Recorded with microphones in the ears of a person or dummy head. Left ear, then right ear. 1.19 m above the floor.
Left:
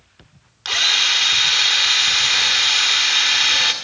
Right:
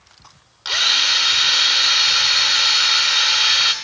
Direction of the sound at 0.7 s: 20° left (ahead or behind).